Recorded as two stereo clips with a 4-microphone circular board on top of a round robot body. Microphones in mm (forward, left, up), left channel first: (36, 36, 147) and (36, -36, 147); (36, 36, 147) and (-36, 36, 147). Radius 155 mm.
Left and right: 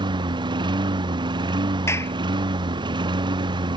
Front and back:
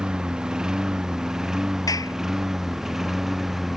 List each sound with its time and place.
0.0 s a lawn mower: 100° right; by 3.8 s 95° right
1.9 s a clap: 35° left